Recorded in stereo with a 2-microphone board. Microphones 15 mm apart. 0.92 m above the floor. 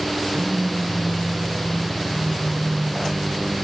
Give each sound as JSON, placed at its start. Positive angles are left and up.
{"t": 0.3, "sound": "a phone buzzing", "side_deg": 5, "distance_m": 3.0}